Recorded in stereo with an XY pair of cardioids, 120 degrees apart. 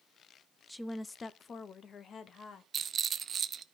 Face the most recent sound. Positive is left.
turn(degrees=-40)